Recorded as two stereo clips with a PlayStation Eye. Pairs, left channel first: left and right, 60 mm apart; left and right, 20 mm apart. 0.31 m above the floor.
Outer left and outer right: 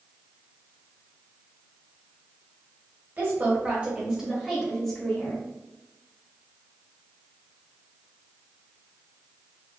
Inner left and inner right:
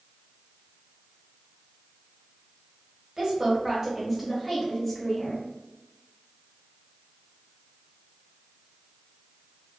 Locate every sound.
3.2 s a woman speaking: 35° right (ahead or behind), 1.3 m; by 5.5 s 20° left (ahead or behind), 1.3 m